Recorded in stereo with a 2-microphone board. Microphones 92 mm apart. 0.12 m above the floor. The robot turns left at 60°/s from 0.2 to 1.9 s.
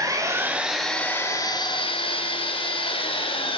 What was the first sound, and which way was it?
An engine running, 145° right.